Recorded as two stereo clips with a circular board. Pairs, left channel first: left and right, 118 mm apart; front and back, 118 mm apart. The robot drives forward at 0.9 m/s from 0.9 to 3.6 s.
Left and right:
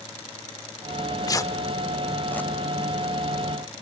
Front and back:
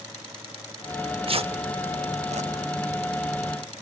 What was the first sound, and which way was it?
Tearing paper, 125° left.